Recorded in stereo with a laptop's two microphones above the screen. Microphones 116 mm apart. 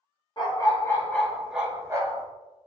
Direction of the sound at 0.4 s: 35° left (ahead or behind).